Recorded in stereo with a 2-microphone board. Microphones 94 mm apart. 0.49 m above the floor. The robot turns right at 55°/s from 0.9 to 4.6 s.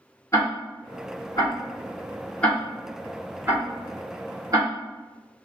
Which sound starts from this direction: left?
Ticking, at 0.3 s.